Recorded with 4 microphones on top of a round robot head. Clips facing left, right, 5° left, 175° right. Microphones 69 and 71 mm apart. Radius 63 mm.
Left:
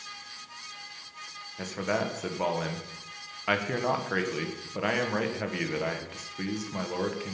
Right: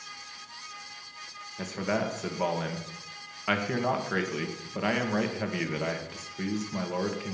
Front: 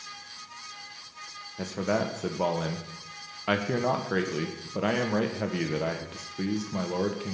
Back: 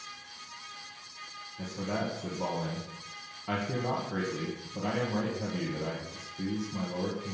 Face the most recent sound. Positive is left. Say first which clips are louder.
# even, front 6 dB
turn(degrees=5)